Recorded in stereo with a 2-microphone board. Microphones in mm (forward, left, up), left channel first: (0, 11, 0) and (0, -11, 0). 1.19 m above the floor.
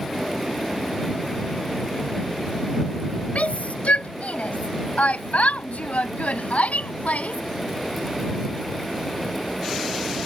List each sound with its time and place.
3.4 s a shout: 75° left (ahead or behind); by 7.4 s 80° left